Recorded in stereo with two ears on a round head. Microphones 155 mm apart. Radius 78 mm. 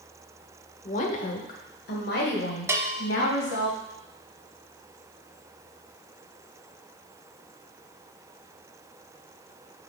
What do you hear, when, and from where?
0.8 s a woman speaking: 40° left (ahead or behind), 1.1 m; by 3.7 s 70° left (ahead or behind), 3.5 m
2.7 s a bell: 15° right (ahead or behind), 0.9 m